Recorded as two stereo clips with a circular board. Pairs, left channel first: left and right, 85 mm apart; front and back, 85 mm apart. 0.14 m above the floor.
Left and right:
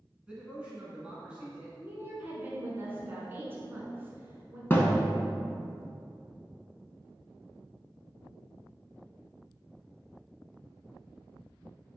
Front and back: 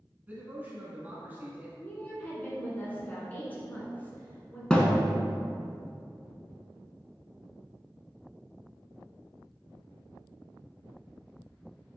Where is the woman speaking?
50° right, 1.2 m.